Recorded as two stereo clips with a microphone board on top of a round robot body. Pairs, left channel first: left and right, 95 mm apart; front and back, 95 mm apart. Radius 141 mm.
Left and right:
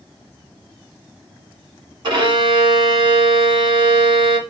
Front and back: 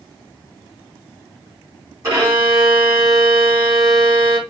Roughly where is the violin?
Behind right.